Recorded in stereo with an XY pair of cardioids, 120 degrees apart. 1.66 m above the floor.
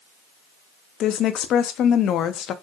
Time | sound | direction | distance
1.0 | a woman speaking | 60° left | 0.5 m